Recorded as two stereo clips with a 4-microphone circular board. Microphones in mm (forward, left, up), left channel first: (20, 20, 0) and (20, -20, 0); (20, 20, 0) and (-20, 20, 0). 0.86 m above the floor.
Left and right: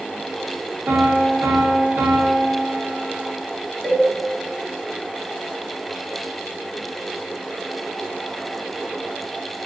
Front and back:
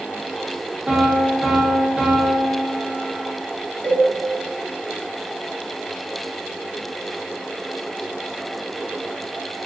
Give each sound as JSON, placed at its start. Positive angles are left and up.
{"t": 0.9, "sound": "a piano", "azimuth_deg": -105, "distance_m": 0.5}
{"t": 3.8, "sound": "a cowbell", "azimuth_deg": 20, "distance_m": 1.2}